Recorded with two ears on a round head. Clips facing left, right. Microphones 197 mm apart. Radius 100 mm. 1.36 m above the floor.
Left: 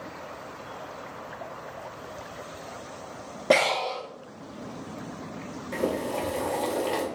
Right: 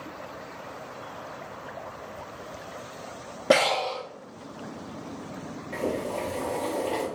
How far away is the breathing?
About 0.5 m.